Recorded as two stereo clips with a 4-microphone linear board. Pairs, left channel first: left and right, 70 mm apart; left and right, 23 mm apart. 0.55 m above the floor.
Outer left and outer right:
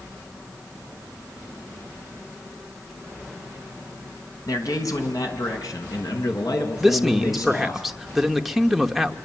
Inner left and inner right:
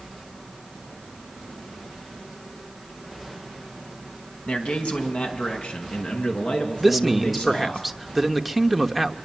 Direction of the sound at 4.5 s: 65° left (ahead or behind).